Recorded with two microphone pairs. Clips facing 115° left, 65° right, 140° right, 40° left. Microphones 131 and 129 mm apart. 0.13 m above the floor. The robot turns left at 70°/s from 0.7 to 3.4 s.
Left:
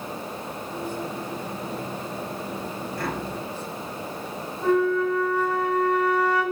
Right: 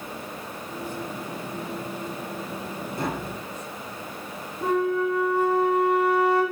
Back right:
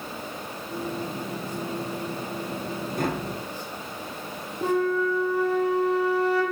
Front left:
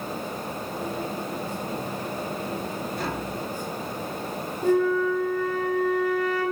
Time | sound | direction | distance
3.0 | tapping | 125° right | 2.5 m
4.6 | a flute | 130° right | 4 m